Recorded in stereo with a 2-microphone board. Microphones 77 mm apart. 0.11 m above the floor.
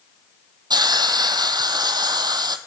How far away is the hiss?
About 0.7 m.